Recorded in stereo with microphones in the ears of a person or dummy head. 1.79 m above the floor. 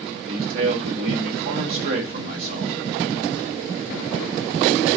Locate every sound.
0.1 s a man speaking: 50° right (ahead or behind), 1.1 m